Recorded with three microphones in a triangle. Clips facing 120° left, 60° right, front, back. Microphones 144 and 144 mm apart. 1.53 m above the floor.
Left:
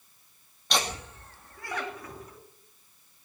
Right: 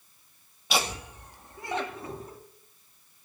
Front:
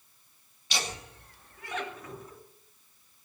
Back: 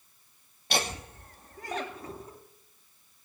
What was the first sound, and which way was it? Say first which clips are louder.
Laughter: right 1 dB, back 5 dB; 145° right.